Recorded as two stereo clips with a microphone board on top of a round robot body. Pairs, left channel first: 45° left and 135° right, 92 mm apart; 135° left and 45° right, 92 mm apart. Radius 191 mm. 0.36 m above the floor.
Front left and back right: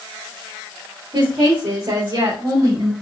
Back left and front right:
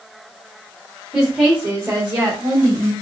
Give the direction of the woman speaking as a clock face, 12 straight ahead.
4 o'clock.